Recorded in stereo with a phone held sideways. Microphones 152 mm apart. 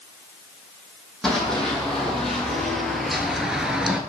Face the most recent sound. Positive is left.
turn(degrees=-5)  # may be behind; listen again after turning